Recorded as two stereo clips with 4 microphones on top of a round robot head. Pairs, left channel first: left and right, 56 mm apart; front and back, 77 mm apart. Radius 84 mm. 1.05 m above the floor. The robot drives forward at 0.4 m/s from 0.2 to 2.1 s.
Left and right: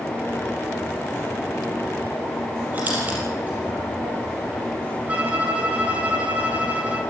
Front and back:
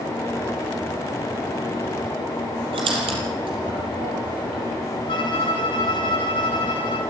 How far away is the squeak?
About 4.5 m.